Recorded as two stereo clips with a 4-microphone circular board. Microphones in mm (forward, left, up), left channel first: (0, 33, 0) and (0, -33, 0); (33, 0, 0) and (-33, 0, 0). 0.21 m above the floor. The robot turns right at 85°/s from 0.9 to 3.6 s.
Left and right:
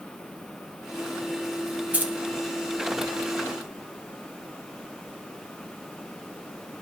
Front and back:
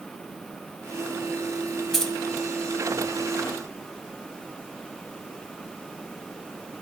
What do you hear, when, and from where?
1.9 s keys jangling: 75° right, 1.0 m; by 2.1 s 60° right, 1.0 m